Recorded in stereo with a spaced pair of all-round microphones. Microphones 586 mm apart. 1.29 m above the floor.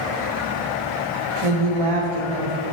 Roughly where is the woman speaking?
Right.